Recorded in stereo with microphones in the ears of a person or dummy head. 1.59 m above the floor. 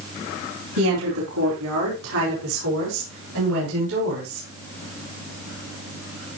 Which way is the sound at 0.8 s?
85° right.